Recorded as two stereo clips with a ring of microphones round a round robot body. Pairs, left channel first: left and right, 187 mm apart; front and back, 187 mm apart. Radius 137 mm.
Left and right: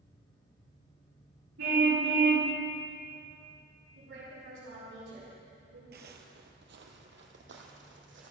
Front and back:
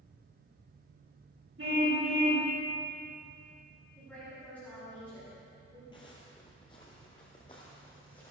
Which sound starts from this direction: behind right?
A car horn, at 1.6 s.